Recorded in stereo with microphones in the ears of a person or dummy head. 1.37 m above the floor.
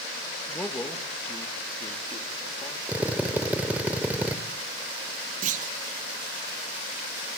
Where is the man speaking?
5° left (ahead or behind), 1.4 m; by 2.8 s 25° left (ahead or behind), 2.5 m.